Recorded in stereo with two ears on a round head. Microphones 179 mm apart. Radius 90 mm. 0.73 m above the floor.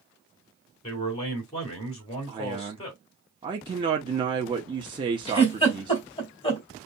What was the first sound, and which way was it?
A man speaking, 30° left (ahead or behind).